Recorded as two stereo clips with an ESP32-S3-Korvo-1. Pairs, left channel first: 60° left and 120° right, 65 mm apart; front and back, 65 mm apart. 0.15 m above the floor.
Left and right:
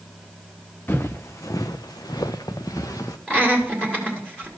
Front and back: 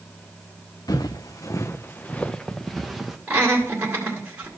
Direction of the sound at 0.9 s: 5° left.